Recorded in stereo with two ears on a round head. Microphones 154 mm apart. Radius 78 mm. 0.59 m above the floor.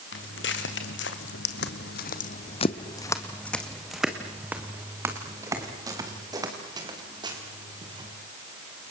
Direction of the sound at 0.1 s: 65° left (ahead or behind).